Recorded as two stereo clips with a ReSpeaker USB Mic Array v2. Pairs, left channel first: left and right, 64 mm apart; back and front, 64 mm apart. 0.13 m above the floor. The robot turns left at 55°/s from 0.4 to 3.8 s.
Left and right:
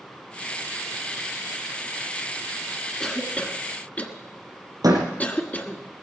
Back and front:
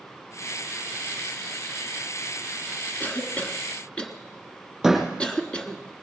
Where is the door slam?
85° right, 3.5 m.